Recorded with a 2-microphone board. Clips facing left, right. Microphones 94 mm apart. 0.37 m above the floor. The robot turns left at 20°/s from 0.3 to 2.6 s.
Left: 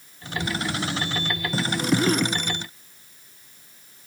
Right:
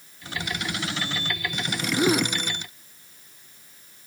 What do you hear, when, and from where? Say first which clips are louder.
2.0 s a gasp: even; 15° right (ahead or behind); by 2.3 s 5° right (ahead or behind)